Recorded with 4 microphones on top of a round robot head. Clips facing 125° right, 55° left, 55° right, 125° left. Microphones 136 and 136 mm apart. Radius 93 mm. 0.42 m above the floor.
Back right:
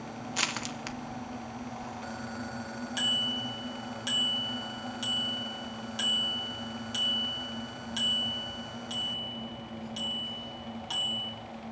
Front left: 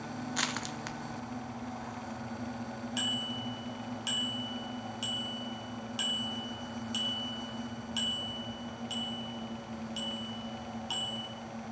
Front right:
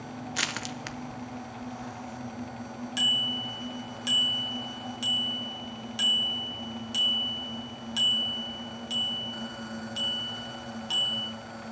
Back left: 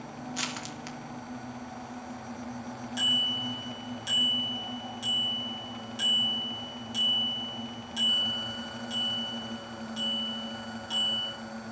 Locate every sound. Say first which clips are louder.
0.3 s crushing: back right 1 dB, front right 1 dB; 50° right, 1.0 m
3.0 s a bicycle bell: back right 1 dB, even; 30° right, 3.5 m